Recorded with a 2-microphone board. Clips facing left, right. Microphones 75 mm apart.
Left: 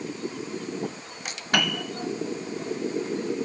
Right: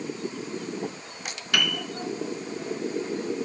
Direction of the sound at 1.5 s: 35° left (ahead or behind).